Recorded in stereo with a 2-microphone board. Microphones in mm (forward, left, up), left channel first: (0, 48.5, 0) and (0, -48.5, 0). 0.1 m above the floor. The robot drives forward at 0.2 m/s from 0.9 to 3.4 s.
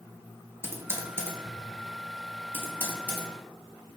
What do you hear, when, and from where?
0.6 s typing on a keyboard: 25° right (ahead or behind), 0.7 m; by 3.3 s 15° right (ahead or behind), 1.1 m